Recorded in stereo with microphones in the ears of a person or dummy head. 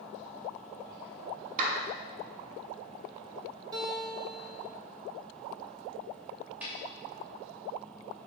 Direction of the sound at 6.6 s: 5° right (ahead or behind).